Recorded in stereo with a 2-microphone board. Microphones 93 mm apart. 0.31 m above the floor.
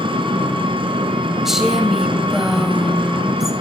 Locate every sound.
0.0 s an engine running: 65° right (ahead or behind), 2 m
1.4 s a woman speaking: 5° right (ahead or behind), 1.7 m